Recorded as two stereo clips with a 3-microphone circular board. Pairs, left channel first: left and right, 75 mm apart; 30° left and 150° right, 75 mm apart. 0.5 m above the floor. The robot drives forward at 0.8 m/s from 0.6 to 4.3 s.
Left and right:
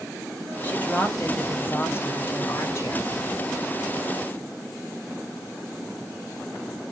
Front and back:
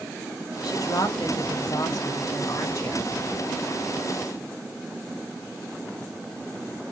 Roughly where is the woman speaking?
Ahead left.